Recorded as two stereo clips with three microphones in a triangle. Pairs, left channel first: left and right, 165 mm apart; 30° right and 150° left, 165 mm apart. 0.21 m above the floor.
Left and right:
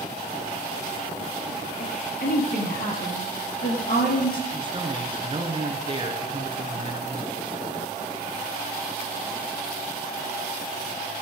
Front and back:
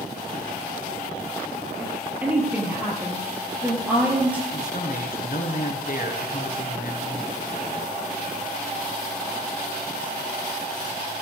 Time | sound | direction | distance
1.8 | a woman speaking | 70° left | 4.5 m
4.5 | a man speaking | 35° right | 3 m